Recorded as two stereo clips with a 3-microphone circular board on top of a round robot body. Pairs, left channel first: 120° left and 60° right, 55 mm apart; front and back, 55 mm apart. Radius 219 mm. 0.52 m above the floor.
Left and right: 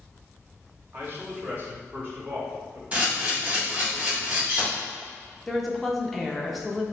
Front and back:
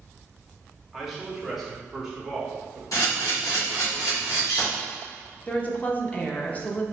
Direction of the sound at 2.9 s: 5° left.